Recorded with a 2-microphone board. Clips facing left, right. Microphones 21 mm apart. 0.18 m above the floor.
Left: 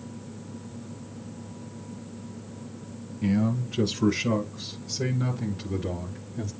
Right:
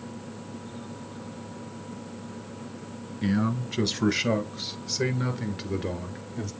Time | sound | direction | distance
3.2 | a man speaking | 50° right (ahead or behind) | 3 m